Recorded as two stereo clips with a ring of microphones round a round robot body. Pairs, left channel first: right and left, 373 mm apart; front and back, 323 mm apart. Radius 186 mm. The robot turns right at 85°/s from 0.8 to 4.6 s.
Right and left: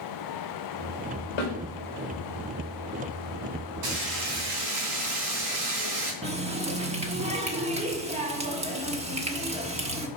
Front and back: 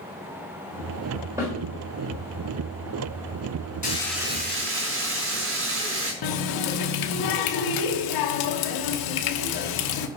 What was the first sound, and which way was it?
A snare drum, 95° right.